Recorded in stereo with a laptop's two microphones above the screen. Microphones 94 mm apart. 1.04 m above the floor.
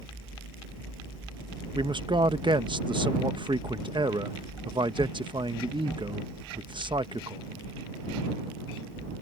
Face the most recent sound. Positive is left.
turn(degrees=-55)  # may be behind; listen again after turning